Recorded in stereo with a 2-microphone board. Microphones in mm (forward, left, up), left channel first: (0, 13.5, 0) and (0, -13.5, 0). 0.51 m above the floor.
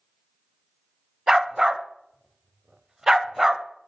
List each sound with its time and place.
1.3 s a dog barking: 20° right (ahead or behind), 0.7 m